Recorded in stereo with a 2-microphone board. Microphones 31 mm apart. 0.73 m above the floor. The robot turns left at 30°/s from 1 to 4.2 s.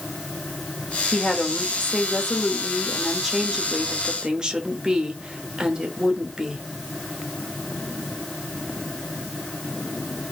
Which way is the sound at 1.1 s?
55° left.